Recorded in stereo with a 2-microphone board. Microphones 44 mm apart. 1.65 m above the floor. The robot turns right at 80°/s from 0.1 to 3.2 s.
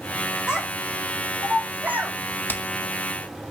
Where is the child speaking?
15° right (ahead or behind), 6 m; by 2.1 s 30° right (ahead or behind), 6 m.